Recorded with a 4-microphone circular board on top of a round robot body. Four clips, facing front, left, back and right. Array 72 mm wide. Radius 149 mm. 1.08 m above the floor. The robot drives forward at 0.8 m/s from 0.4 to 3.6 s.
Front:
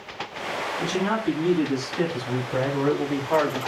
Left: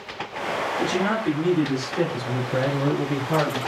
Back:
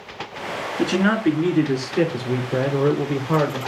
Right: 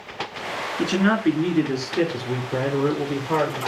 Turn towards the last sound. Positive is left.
turn(degrees=-165)